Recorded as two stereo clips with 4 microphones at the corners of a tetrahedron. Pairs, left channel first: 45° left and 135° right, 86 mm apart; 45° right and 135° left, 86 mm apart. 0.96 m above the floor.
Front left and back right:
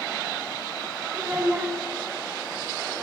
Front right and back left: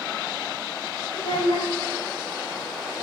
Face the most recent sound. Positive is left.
turn(degrees=-70)